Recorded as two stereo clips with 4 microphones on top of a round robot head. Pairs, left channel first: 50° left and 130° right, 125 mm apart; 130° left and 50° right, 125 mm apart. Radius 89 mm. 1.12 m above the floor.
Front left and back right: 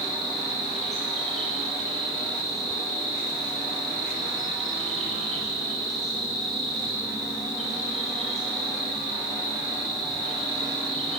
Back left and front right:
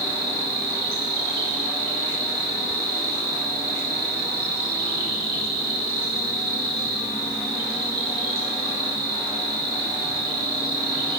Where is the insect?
40° right, 1.8 m.